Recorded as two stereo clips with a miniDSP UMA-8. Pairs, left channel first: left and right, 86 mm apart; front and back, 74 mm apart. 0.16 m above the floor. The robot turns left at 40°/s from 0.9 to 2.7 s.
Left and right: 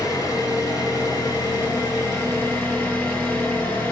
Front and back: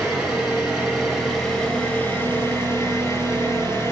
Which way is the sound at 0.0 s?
95° left.